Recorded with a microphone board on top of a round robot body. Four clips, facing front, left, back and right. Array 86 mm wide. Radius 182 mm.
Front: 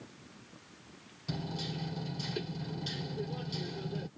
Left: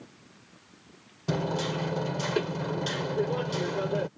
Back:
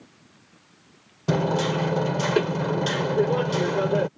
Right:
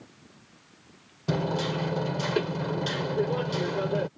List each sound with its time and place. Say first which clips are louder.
1.3 s hammering: right 1 dB, back 17 dB; 175° right